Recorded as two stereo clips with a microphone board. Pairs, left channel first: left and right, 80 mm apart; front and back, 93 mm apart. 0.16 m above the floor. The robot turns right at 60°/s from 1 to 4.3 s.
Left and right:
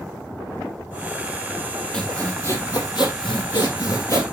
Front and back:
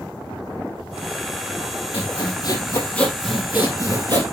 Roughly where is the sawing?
Ahead.